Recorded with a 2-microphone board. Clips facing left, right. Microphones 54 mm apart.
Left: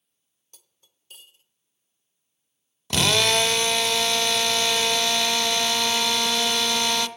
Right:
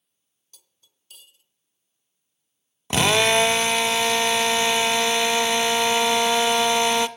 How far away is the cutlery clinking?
About 1.0 m.